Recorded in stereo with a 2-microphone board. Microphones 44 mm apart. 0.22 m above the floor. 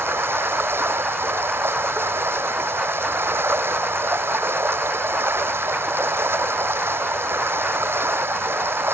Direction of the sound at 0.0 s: 70° right (ahead or behind).